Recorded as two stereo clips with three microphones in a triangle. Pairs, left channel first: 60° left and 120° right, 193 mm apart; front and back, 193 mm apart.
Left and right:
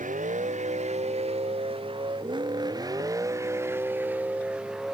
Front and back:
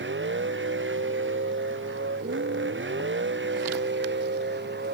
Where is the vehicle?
170° right; by 4.9 s 150° left.